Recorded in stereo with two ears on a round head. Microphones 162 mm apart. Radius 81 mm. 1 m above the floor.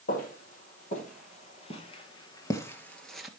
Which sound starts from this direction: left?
Footsteps, at 0.1 s.